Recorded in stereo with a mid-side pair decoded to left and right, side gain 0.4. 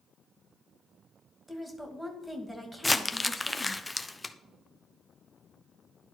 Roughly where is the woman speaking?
Ahead.